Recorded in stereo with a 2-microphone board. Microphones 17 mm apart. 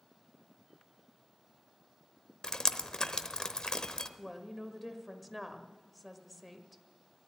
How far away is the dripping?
About 0.8 m.